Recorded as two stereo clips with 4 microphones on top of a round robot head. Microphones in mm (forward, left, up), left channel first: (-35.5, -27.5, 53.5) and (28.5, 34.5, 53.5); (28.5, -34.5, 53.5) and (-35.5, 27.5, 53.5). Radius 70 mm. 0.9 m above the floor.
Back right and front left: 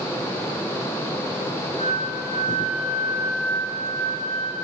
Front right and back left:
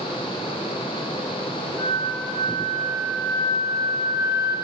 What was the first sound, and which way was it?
A flute, 125° right.